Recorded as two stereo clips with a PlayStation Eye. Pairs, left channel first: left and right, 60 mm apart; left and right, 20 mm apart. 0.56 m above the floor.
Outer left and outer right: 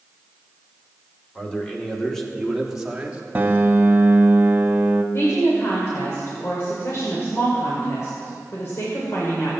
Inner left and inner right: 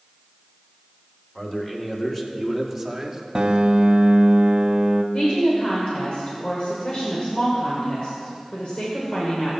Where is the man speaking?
20° left (ahead or behind), 2 m; by 3.2 s 20° right (ahead or behind), 1.3 m.